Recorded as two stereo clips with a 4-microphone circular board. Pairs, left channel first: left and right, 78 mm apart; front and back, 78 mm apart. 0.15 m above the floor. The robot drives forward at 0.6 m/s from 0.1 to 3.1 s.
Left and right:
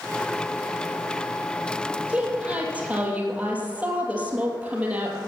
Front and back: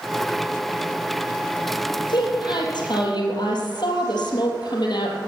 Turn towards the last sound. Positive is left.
turn(degrees=-20)